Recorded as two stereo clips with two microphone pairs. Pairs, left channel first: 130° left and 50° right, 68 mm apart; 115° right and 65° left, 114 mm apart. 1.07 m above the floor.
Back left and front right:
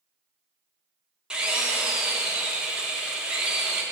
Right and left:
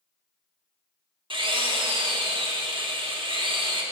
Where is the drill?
25° left, 0.9 m.